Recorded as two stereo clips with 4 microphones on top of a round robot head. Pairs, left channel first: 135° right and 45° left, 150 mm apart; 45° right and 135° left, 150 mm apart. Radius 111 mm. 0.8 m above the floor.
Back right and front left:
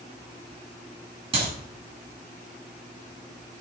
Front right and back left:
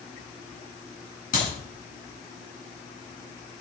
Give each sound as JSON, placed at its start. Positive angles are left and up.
{"t": 1.3, "sound": "a clap", "azimuth_deg": -10, "distance_m": 9.0}